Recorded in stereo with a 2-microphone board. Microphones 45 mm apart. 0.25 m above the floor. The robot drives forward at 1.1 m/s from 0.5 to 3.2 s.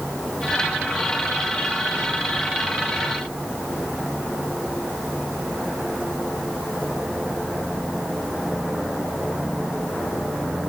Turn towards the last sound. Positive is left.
No sound to turn to.